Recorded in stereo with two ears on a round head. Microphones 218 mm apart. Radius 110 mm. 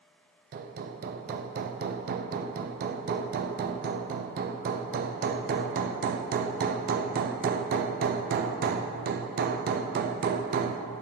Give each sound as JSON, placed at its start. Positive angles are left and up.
{"t": 0.5, "sound": "hammering", "side_deg": -40, "distance_m": 0.5}